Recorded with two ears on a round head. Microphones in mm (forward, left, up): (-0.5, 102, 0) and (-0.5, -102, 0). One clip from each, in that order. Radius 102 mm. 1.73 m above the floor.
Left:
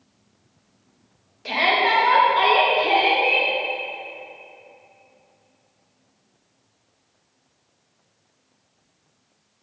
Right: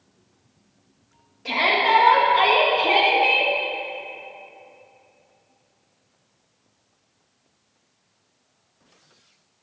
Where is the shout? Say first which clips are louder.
Even; 25° left (ahead or behind), 2.0 m; by 3.5 s 25° right (ahead or behind), 1.9 m.